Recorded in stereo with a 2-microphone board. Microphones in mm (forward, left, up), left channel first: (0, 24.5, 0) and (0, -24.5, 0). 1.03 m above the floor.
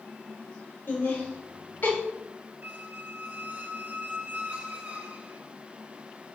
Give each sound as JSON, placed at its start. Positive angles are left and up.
{"t": 0.9, "sound": "laughter", "side_deg": 45, "distance_m": 3.0}
{"t": 2.6, "sound": "a squeak", "side_deg": -30, "distance_m": 0.7}